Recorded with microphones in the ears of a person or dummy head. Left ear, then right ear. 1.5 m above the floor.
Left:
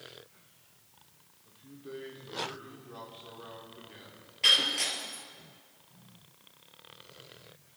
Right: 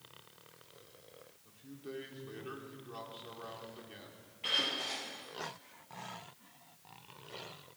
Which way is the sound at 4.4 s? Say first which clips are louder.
Left 9 dB; 70° left (ahead or behind).